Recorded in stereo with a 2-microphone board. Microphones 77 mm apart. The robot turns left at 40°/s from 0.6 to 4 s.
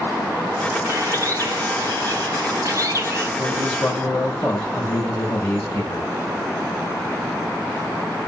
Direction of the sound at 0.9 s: 45° right.